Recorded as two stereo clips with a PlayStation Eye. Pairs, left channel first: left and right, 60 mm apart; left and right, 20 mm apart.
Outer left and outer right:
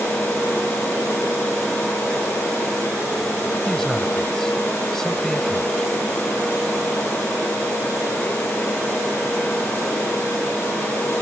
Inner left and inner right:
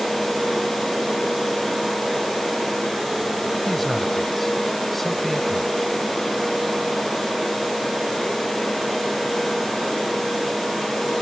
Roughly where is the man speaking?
Centre.